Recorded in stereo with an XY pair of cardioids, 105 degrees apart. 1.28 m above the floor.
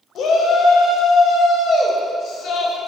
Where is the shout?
70° left, 0.6 m.